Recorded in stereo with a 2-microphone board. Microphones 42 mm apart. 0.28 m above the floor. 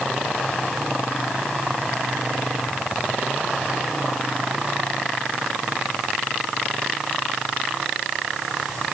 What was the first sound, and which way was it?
Only background noise.